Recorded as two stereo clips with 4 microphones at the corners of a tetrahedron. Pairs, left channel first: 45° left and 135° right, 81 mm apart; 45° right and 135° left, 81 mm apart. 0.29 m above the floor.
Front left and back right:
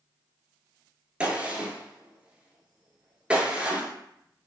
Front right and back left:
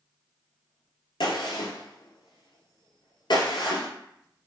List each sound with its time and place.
1.2 s a gunshot: 60° right, 1.0 m